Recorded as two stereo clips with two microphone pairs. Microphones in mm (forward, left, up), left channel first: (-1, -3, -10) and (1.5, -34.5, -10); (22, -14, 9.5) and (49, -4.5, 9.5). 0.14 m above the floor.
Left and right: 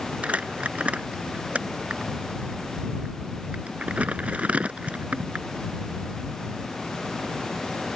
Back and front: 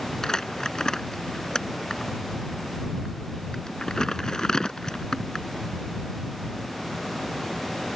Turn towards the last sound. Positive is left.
turn(degrees=-95)